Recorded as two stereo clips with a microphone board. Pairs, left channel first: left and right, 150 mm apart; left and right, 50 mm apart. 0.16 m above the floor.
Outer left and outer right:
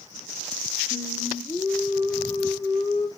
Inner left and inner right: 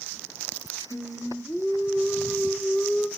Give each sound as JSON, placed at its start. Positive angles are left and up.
{"t": 0.9, "sound": "singing", "side_deg": 0, "distance_m": 3.0}